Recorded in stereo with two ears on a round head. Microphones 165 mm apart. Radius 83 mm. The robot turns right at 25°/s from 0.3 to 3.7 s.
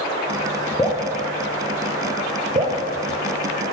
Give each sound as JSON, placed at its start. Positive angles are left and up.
{"t": 0.8, "sound": "dripping", "side_deg": 20, "distance_m": 0.7}